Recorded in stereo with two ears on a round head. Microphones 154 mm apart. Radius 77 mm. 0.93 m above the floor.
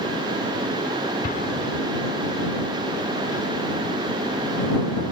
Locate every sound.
1.2 s an explosion: 50° left (ahead or behind)